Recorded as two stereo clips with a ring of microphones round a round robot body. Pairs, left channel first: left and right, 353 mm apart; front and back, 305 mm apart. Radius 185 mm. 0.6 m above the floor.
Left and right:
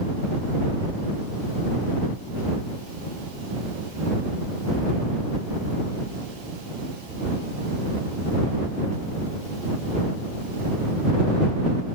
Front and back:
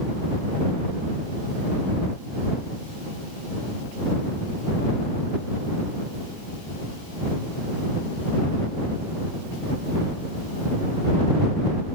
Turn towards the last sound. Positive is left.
No sound to turn to.